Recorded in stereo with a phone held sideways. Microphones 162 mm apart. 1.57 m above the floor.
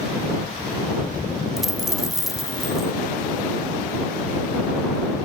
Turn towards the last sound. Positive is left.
turn(degrees=0)  # may be behind; listen again after turning